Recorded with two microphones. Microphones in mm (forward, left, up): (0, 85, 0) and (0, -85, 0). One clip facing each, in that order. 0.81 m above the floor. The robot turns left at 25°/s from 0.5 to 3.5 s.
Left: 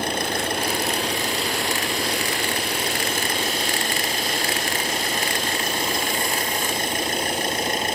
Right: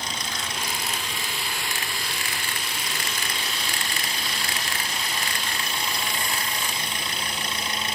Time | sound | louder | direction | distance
0.0 | an engine running | left 10 dB | 125° left | ?